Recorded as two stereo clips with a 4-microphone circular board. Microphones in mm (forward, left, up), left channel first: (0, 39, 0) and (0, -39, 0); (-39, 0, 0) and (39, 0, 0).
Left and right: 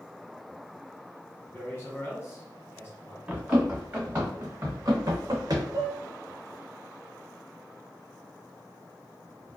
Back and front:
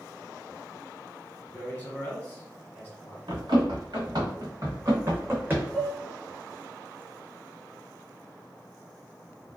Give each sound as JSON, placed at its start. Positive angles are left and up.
{"t": 1.5, "sound": "a man speaking", "azimuth_deg": 125, "distance_m": 1.2}
{"t": 3.3, "sound": "running footsteps", "azimuth_deg": -15, "distance_m": 1.7}
{"t": 5.7, "sound": "dishes clattering", "azimuth_deg": -95, "distance_m": 1.3}